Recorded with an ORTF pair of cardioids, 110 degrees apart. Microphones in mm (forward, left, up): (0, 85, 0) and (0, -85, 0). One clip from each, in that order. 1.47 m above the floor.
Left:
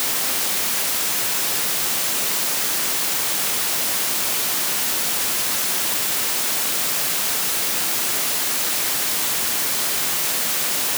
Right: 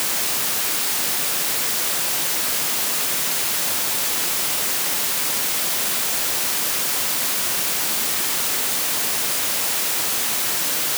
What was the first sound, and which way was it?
Only background noise.